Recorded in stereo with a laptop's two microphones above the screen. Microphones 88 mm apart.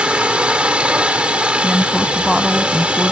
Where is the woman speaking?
5° right (ahead or behind).